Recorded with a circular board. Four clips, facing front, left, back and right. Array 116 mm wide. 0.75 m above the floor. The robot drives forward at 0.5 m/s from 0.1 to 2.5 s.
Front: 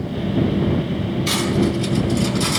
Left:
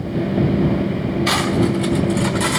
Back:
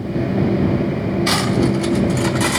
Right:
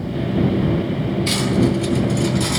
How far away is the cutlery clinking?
About 1.0 m.